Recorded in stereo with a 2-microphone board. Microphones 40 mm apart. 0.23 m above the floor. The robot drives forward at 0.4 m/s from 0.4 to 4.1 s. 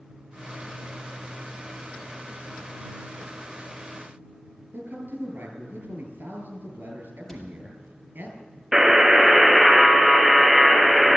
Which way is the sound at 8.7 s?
15° right (ahead or behind).